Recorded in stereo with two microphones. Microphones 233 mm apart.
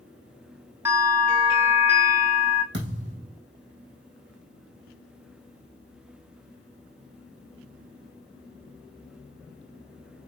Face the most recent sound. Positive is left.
turn(degrees=-50)  # may be behind; listen again after turning